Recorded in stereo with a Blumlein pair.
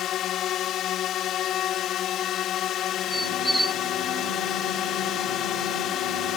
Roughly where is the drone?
Ahead left.